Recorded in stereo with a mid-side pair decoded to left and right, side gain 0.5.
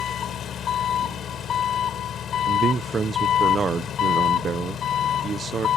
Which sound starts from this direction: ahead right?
A man speaking, at 2.5 s.